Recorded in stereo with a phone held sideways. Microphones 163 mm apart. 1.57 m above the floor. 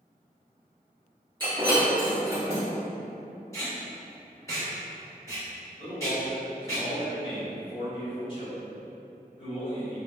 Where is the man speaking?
35° left (ahead or behind), 1.7 m.